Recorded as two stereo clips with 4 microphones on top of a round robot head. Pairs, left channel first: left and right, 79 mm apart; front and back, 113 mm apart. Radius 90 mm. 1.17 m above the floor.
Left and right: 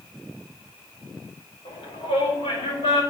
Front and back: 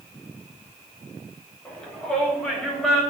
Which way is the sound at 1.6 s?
80° left.